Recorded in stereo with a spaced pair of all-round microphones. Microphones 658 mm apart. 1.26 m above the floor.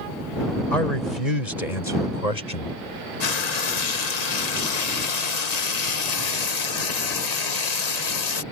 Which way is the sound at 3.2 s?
75° left (ahead or behind).